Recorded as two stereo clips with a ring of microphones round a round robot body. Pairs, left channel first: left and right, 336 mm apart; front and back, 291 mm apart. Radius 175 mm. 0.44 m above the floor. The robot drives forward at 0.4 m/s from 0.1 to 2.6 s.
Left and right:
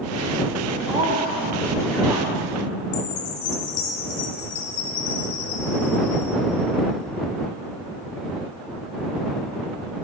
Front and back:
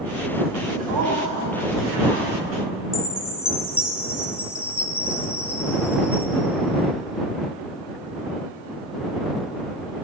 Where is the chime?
85° left, 0.8 m.